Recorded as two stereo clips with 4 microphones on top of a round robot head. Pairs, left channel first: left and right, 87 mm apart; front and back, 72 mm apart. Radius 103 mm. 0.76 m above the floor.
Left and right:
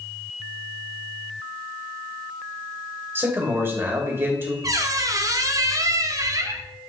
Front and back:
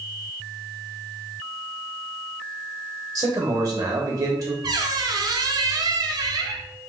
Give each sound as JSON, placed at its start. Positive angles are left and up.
{"t": 3.1, "sound": "a man speaking", "azimuth_deg": -145, "distance_m": 2.0}
{"t": 4.6, "sound": "a squeak", "azimuth_deg": -140, "distance_m": 0.8}